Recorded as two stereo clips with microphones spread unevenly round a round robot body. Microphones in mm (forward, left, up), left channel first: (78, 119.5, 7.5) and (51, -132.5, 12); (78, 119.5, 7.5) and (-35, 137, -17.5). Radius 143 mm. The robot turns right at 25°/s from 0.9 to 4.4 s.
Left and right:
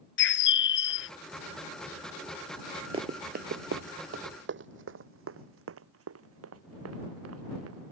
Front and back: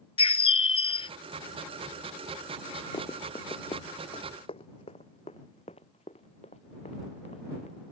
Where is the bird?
40° left; by 1.1 s 45° left.